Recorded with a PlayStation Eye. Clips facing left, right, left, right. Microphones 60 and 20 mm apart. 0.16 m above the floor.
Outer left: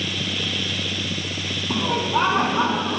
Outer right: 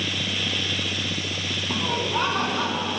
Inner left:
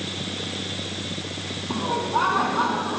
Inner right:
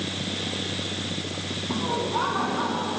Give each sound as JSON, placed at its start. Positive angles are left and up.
{"t": 1.7, "sound": "laughter", "side_deg": 10, "distance_m": 1.5}